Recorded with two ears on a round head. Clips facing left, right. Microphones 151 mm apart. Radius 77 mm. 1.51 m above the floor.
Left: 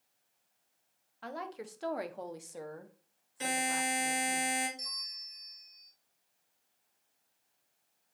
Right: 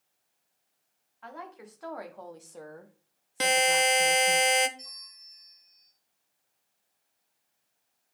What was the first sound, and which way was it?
A woman speaking, 40° left (ahead or behind).